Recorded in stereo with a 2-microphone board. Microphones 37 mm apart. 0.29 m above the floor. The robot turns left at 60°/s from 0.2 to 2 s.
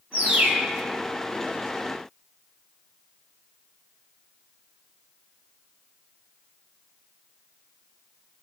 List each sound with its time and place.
0.1 s a bird: 40° right (ahead or behind), 3 m; by 0.6 s 15° right (ahead or behind), 3 m